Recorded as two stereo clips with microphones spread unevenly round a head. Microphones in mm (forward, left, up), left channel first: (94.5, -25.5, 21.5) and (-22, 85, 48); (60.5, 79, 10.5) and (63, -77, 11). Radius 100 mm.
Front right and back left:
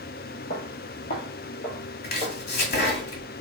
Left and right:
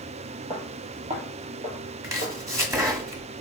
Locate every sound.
0.5 s footsteps: 35° right, 1.6 m; by 2.4 s 105° right, 2 m
2.0 s chopping: 20° right, 1.9 m